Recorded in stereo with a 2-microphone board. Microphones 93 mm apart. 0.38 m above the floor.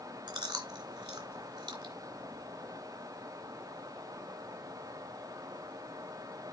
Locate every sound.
0.3 s chewing: 50° right (ahead or behind), 2.5 m